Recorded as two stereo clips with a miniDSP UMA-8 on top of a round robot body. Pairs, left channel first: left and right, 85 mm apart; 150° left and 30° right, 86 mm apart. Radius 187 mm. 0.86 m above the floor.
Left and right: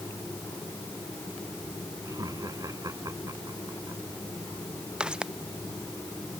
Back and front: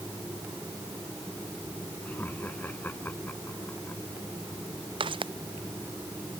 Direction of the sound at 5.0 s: 10° right.